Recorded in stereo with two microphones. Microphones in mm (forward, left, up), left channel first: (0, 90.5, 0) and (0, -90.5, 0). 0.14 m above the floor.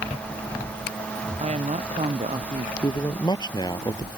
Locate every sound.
1.4 s a woman speaking: 35° right (ahead or behind)
2.8 s a man speaking: 25° left (ahead or behind)